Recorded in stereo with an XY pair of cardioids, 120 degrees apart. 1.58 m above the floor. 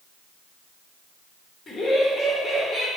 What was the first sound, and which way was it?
Laughter, 30° left.